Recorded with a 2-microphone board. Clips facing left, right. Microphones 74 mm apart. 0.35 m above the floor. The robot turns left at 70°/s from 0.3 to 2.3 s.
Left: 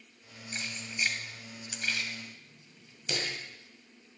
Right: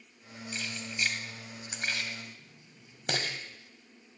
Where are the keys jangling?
40° left (ahead or behind), 1.7 m; by 3.4 s 60° right (ahead or behind), 1.7 m.